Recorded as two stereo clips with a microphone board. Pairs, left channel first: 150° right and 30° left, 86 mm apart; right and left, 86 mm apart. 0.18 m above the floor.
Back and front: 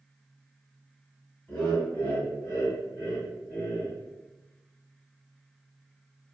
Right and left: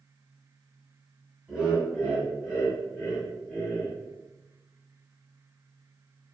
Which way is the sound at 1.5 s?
150° left.